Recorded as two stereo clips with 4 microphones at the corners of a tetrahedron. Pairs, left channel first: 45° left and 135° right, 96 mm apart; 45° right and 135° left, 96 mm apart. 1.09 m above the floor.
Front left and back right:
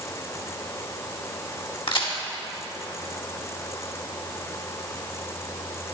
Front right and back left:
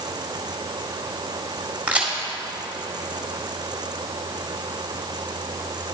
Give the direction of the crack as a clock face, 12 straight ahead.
10 o'clock.